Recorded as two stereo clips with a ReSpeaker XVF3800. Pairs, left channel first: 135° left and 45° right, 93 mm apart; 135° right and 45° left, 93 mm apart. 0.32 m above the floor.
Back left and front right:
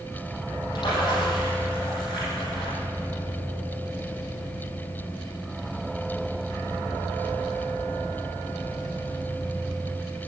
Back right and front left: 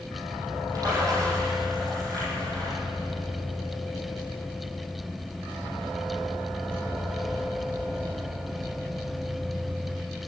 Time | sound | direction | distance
0.8 | a splash | 95° left | 8 m